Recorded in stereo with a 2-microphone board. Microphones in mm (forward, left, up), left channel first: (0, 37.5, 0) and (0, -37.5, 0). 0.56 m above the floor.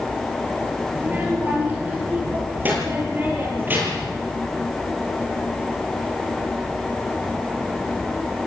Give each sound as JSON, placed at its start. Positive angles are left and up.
{"t": 0.9, "sound": "a child speaking", "side_deg": -25, "distance_m": 8.0}